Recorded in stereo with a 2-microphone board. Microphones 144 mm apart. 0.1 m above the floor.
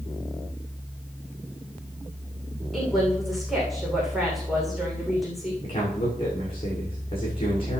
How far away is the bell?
No bell in this recording.